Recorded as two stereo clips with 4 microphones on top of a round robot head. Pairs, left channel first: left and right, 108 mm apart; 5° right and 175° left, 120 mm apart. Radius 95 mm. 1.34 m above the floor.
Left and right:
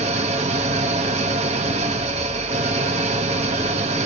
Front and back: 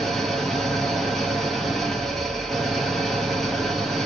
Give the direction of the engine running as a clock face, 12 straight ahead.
3 o'clock.